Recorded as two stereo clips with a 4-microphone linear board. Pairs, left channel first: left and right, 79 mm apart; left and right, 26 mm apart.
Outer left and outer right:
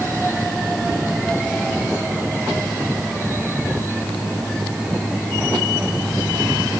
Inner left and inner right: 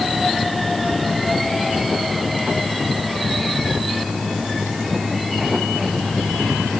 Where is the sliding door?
No sliding door in this recording.